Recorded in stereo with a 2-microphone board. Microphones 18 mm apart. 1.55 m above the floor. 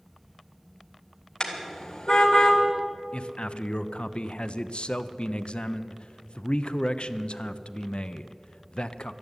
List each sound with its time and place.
1.4 s a car horn: 30° left (ahead or behind), 2 m
3.1 s a man speaking: 65° left (ahead or behind), 0.6 m